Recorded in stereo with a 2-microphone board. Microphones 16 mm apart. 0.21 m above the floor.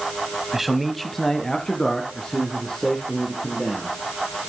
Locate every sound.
0.5 s a man speaking: 15° right (ahead or behind), 1.0 m; by 3.9 s 65° left (ahead or behind), 4.5 m